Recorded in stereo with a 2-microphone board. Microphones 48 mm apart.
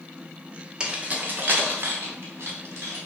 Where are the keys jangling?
20° right (ahead or behind), 0.7 m; by 3.0 s 65° right (ahead or behind), 1.8 m.